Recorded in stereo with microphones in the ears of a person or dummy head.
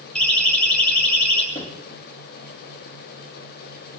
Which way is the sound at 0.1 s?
10° left (ahead or behind).